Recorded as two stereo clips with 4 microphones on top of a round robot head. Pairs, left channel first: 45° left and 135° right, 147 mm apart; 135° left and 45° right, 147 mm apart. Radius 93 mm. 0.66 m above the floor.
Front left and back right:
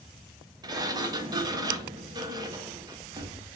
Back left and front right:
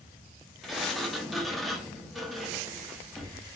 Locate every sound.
0.6 s a sliding door: 135° right, 0.7 m